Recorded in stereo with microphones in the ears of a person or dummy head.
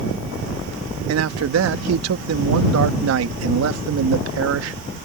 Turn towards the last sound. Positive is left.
turn(degrees=-85)